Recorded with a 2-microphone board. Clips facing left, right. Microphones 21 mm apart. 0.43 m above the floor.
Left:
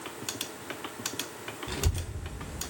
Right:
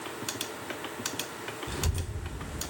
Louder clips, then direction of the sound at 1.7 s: Even; 15° left (ahead or behind).